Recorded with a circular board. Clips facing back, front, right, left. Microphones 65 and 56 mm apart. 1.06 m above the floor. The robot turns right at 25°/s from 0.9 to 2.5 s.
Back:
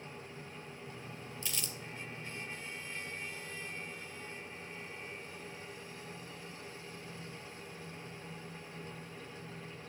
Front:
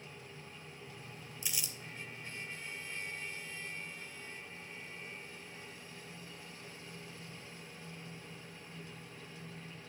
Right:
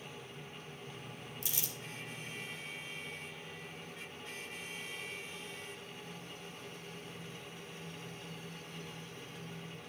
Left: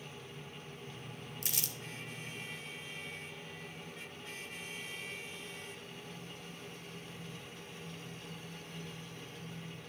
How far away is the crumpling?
About 0.7 m.